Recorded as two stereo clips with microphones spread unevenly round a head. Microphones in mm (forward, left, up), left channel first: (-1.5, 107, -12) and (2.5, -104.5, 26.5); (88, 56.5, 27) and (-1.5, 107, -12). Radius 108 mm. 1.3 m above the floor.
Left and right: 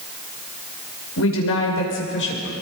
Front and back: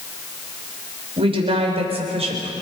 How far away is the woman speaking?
About 5.5 m.